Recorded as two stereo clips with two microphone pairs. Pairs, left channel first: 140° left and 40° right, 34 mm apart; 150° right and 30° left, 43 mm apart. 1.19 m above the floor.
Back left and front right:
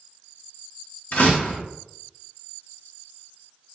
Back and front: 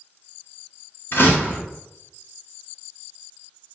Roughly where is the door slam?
Behind.